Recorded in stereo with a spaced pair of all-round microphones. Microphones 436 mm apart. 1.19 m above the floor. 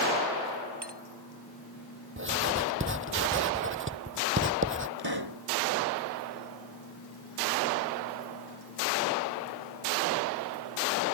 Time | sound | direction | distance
0.8 | a clink | 70° right (ahead or behind) | ?
2.2 | writing | 30° right (ahead or behind) | ?
5.0 | a pop | 60° right (ahead or behind) | ?